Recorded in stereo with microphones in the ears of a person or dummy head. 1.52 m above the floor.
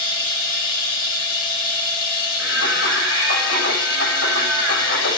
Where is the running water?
50° left (ahead or behind), 1.8 m.